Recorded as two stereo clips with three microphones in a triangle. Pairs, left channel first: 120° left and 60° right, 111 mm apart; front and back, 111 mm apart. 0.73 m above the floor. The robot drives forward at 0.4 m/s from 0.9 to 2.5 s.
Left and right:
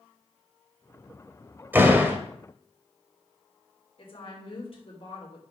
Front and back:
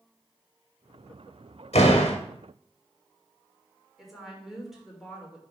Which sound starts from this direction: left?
A woman speaking, at 4.0 s.